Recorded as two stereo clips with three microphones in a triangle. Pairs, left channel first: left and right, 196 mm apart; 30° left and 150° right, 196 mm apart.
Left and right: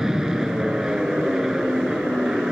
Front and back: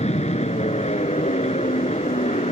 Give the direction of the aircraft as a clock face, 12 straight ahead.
12 o'clock.